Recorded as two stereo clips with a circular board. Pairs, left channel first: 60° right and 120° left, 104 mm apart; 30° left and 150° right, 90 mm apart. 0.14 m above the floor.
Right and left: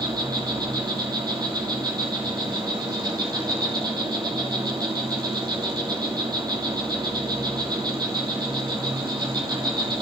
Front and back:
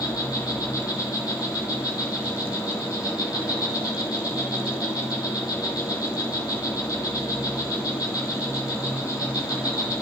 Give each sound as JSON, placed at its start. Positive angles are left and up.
{"t": 0.0, "sound": "an insect", "azimuth_deg": 75, "distance_m": 2.5}